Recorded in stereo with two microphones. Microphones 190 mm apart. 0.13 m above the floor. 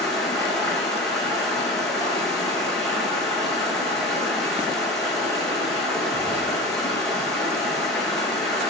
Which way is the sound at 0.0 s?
Centre (ahead or behind).